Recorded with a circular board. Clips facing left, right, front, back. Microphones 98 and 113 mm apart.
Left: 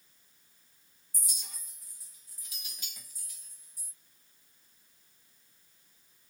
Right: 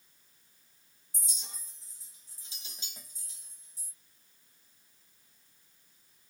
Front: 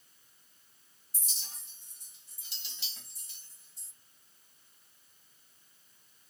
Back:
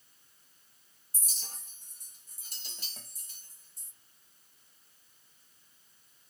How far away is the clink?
About 0.8 m.